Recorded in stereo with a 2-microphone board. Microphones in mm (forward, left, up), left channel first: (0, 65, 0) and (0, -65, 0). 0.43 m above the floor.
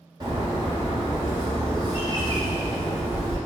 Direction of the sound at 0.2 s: 30° right (ahead or behind).